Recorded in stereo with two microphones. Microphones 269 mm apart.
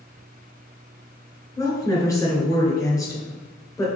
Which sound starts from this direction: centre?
A woman speaking, at 1.6 s.